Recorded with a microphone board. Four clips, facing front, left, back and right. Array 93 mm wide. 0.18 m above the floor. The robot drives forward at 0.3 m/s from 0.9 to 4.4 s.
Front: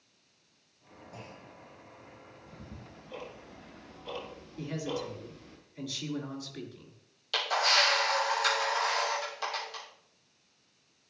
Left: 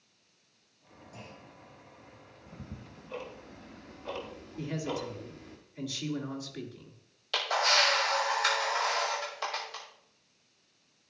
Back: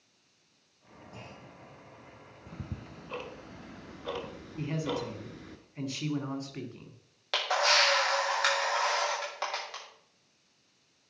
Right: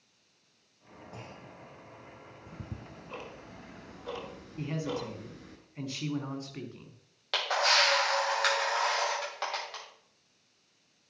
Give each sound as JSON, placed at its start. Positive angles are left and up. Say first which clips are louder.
{"t": 1.1, "sound": "a clunk", "louder": "right 2 dB, even", "azimuth_deg": -85, "distance_m": 5.0}
{"t": 2.5, "sound": "ticking", "louder": "right 1 dB, back 6 dB", "azimuth_deg": -160, "distance_m": 1.1}
{"t": 4.6, "sound": "a man speaking", "louder": "even, back 2 dB", "azimuth_deg": -140, "distance_m": 1.7}
{"t": 7.3, "sound": "a camera shutter", "louder": "even, back 1 dB", "azimuth_deg": -140, "distance_m": 6.0}